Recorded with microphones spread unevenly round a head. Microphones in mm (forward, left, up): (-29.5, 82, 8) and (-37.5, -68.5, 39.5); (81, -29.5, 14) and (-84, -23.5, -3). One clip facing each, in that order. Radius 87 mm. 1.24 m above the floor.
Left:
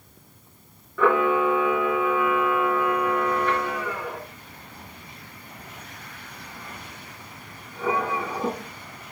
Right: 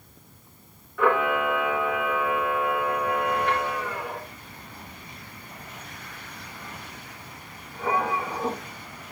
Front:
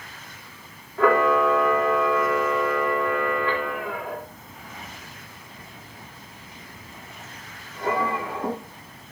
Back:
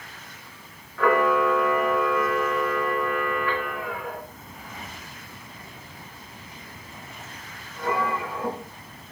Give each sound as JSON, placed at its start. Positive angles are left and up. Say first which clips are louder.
{"t": 1.0, "sound": "a camera shutter", "louder": "left 3 dB, front 2 dB", "azimuth_deg": 65, "distance_m": 2.5}